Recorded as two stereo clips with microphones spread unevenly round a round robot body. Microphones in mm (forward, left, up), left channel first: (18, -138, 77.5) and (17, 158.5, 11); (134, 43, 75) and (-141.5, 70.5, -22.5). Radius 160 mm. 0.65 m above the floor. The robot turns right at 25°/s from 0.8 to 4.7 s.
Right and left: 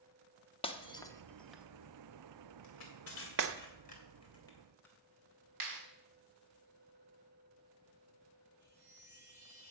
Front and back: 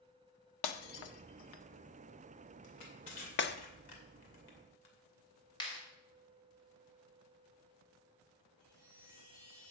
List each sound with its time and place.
0.6 s breaking glass: 15° right, 0.8 m; by 3.6 s 55° left, 0.8 m
2.6 s crushing: 55° right, 2.5 m; by 5.0 s straight ahead, 2.5 m
5.6 s a clap: 70° left, 3 m
8.6 s a chime: 60° left, 4 m